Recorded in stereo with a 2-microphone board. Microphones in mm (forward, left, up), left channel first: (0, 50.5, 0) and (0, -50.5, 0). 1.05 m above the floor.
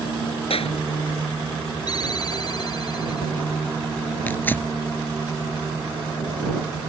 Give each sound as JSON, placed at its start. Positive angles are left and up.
{"t": 0.5, "sound": "a clap", "side_deg": 75}
{"t": 1.9, "sound": "a ringtone", "side_deg": 45}
{"t": 4.3, "sound": "tearing paper", "side_deg": 20}